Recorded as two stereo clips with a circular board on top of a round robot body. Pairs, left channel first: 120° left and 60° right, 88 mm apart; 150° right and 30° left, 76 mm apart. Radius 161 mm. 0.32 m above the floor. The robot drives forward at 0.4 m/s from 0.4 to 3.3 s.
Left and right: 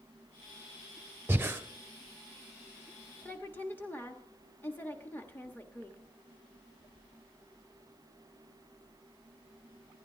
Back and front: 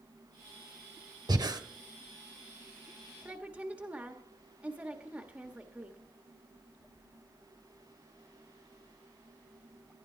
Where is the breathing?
5° left, 1.3 m.